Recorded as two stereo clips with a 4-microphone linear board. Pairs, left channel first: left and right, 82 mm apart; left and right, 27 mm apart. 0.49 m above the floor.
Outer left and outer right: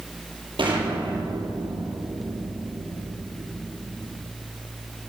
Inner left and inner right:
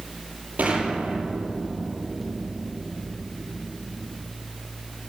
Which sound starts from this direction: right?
An explosion, at 0.6 s.